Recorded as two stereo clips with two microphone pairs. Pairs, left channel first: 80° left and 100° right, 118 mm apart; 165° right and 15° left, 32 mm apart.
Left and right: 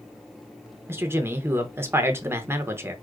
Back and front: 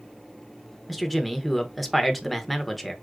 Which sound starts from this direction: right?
A man speaking, at 0.9 s.